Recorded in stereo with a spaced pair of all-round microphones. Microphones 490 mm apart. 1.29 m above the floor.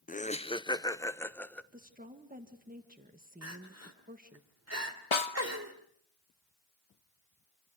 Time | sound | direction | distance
0.1 | laughter | 20° left (ahead or behind) | 0.5 m
1.7 | a woman speaking | 15° right (ahead or behind) | 1.6 m
3.4 | crying | 30° right (ahead or behind) | 3 m
5.1 | a snare drum | 70° left (ahead or behind) | 1.0 m